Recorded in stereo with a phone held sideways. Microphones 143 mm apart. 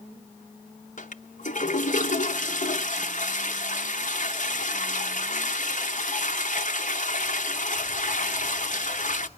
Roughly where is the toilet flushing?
Left.